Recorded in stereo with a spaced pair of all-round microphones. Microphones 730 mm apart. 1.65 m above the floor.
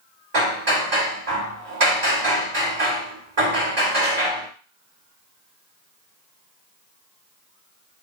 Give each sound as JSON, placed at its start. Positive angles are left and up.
{"t": 0.3, "sound": "hammering", "side_deg": -55, "distance_m": 1.7}